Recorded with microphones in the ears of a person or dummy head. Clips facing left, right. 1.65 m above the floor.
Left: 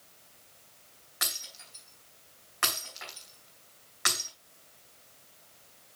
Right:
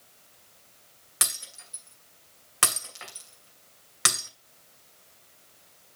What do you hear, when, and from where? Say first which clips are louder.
1.2 s breaking glass: right 2 dB; 45° right (ahead or behind), 2.5 m